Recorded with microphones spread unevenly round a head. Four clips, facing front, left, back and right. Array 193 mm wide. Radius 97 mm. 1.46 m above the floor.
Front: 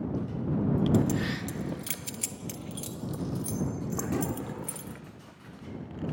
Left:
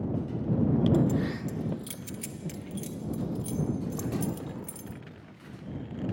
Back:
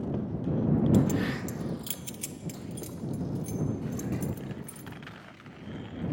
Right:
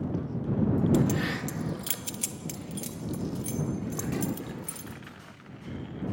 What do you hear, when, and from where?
0.9 s keys jangling: 120° right; by 5.0 s 10° right